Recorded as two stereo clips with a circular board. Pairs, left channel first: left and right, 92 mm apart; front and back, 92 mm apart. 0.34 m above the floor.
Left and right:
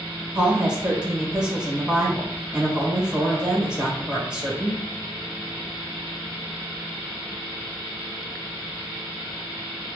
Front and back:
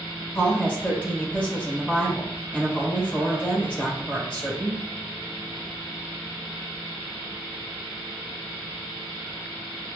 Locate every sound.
0.3 s a woman speaking: 30° right, 1.0 m